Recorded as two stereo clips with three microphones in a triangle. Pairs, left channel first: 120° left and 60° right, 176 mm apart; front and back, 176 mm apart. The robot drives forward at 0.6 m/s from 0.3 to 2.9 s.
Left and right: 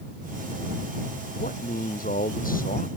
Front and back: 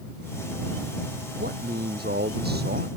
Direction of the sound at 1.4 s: 155° left.